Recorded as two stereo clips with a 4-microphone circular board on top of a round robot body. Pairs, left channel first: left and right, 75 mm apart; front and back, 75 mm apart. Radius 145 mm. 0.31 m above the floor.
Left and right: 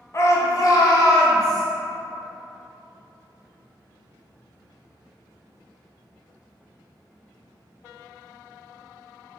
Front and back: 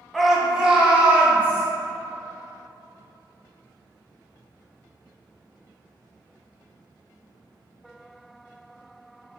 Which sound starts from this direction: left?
A shout, at 0.1 s.